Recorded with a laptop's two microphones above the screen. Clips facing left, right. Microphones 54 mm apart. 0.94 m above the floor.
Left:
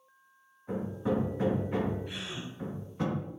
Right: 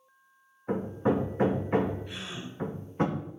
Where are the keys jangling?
I don't hear keys jangling.